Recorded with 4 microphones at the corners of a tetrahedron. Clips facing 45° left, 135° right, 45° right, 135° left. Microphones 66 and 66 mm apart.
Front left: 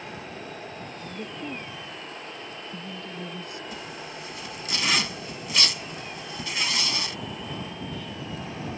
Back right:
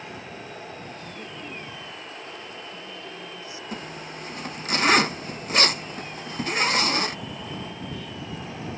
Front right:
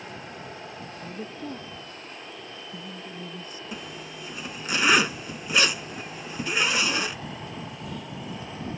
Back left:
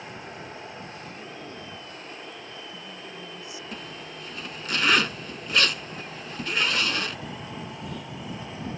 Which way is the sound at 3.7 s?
120° right.